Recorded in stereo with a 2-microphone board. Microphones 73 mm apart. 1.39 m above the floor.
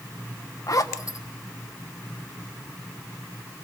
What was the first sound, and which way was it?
A zipper, 50° left (ahead or behind).